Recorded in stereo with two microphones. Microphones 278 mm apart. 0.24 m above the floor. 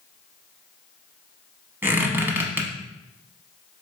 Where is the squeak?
10° right (ahead or behind), 0.7 m.